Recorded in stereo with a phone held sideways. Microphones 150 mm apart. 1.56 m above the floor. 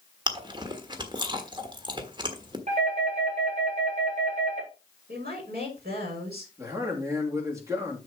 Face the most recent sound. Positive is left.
turn(degrees=-20)  # may be behind; listen again after turning